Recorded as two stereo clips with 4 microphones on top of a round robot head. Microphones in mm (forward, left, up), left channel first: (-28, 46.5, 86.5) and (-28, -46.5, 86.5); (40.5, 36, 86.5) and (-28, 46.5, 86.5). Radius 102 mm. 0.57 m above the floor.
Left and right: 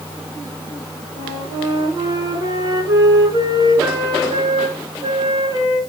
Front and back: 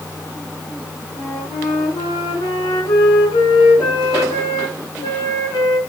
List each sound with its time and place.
1.1 s a flute: 40° right, 5 m